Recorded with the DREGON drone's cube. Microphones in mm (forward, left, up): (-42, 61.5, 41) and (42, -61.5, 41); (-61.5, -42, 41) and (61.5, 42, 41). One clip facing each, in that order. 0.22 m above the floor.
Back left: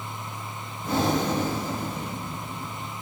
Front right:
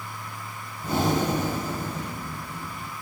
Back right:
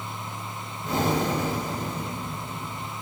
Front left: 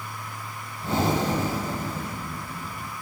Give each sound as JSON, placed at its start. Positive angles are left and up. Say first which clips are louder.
{"t": 0.8, "sound": "breathing", "louder": "even, front left 1 dB", "azimuth_deg": 15, "distance_m": 1.3}